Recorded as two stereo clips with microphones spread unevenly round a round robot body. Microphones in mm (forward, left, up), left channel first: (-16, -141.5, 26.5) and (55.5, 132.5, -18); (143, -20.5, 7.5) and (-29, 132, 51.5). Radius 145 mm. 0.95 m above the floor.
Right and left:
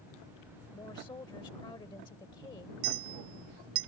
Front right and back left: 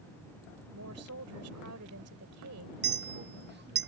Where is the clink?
95° left.